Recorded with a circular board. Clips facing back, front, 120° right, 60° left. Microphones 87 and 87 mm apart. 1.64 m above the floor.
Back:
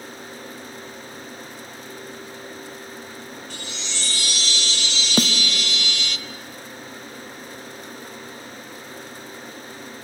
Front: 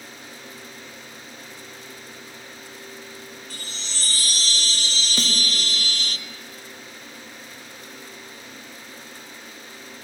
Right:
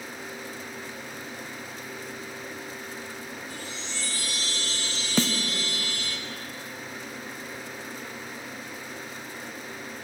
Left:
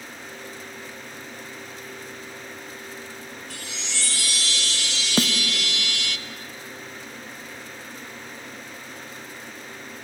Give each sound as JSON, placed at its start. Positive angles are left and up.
{"t": 3.5, "sound": "a chime", "azimuth_deg": 50, "distance_m": 0.7}
{"t": 5.2, "sound": "a snare drum", "azimuth_deg": 135, "distance_m": 0.9}